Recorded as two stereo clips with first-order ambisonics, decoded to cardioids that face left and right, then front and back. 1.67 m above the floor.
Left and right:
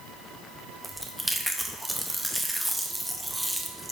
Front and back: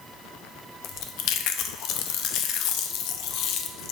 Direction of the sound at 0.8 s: 5° right.